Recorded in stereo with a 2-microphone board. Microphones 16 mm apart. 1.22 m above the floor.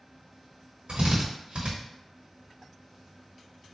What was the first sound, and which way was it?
A drill, 80° right.